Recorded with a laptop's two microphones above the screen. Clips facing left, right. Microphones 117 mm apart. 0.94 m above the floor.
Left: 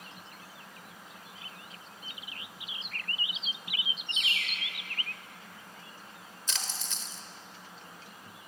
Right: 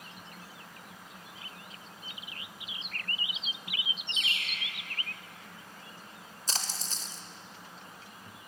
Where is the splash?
40° right (ahead or behind), 0.8 m.